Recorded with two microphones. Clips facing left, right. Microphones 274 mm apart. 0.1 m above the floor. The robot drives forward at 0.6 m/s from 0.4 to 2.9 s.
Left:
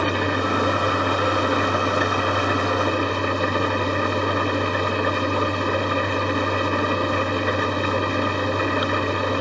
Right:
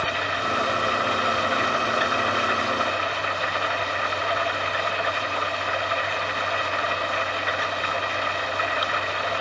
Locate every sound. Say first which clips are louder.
0.0 s an engine running: left 9 dB; 55° left (ahead or behind); by 9.4 s 50° left (ahead or behind)